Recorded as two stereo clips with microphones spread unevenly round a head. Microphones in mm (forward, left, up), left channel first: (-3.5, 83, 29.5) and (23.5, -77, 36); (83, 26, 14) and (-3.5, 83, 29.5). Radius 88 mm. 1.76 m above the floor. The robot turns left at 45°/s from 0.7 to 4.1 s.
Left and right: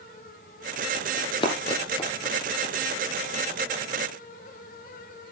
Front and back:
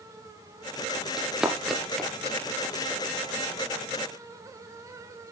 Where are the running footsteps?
100° left, 1.8 m; by 2.9 s 15° left, 2.5 m.